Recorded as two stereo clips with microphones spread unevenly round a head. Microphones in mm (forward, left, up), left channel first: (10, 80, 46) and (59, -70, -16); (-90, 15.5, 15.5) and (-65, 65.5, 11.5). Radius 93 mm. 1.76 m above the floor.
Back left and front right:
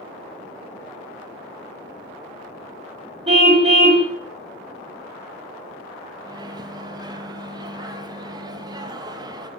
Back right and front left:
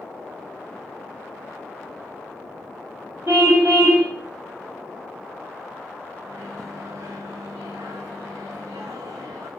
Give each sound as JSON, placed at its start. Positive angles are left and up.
{"t": 3.3, "sound": "a car horn", "azimuth_deg": -15, "distance_m": 4.5}
{"t": 6.2, "sound": "a microwave", "azimuth_deg": 0, "distance_m": 1.8}